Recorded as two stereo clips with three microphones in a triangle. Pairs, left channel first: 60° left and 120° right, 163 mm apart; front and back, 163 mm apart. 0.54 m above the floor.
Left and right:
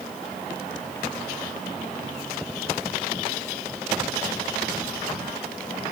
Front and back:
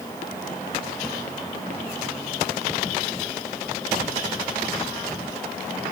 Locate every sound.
Only background noise.